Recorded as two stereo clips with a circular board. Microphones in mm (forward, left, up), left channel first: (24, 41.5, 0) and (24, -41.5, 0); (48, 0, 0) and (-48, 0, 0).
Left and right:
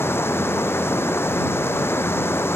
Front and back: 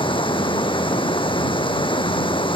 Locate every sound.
0.0 s running water: 30° left